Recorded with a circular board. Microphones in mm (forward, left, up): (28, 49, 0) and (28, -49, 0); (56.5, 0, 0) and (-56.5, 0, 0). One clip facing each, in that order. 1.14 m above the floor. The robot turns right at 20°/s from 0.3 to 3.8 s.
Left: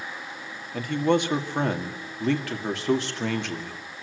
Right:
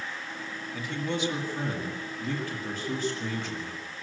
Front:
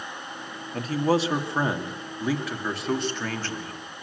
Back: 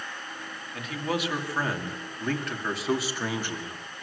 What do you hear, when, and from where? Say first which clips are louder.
0.7 s a man speaking: left 9 dB, front 7 dB; 50° left, 2.5 m; by 4.0 s 110° left, 2.5 m